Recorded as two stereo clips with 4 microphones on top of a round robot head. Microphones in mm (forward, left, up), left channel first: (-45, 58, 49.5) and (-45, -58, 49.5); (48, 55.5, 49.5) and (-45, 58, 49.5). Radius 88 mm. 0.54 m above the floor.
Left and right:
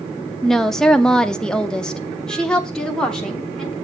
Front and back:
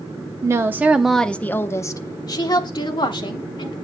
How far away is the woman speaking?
About 0.8 m.